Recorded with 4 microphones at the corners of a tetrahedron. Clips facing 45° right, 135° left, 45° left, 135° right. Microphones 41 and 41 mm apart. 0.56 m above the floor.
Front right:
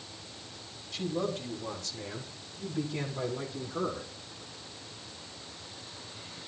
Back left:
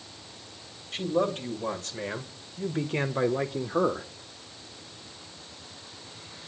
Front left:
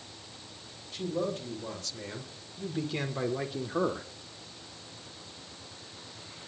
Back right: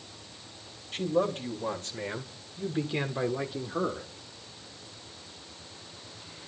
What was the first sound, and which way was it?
A man speaking, straight behind.